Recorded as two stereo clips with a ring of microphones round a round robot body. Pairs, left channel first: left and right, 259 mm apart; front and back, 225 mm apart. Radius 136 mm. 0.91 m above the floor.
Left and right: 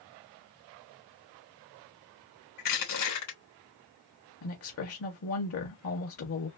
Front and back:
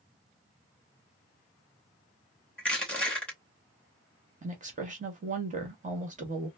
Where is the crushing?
85° left, 2.5 m.